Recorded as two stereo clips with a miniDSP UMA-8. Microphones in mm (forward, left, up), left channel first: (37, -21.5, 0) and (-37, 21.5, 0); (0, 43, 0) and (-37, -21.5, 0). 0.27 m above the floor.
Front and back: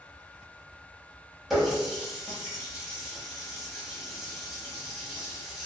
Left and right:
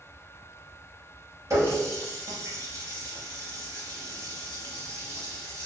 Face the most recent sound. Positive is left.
turn(degrees=-125)